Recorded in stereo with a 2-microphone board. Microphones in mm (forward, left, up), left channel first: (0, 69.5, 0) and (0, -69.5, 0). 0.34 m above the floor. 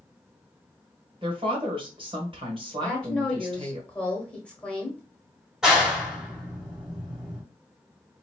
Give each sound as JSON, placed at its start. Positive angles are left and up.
{"t": 1.2, "sound": "a woman speaking", "side_deg": -40, "distance_m": 1.5}
{"t": 2.8, "sound": "a woman speaking", "side_deg": 10, "distance_m": 1.3}
{"t": 5.6, "sound": "a clap", "side_deg": -5, "distance_m": 1.3}